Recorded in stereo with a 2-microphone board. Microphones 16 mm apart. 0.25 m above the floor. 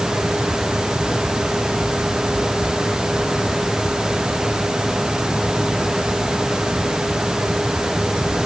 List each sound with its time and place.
Only background noise.